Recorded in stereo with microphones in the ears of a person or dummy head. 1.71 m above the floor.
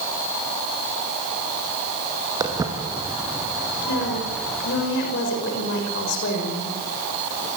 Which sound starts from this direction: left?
A woman speaking, at 3.9 s.